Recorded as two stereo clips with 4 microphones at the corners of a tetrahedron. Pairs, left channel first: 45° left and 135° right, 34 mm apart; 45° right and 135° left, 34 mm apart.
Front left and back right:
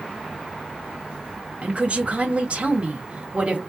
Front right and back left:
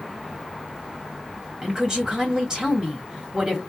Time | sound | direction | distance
1.6 | a woman speaking | 160° right | 1.9 m